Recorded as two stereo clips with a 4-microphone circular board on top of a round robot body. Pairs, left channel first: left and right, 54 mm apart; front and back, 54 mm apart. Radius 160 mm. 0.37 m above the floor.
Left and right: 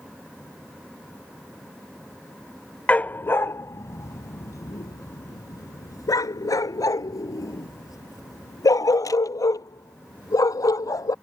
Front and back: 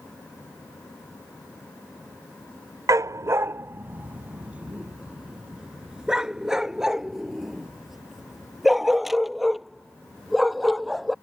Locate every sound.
2.9 s a dog barking: 155° left; by 11.1 s 90° left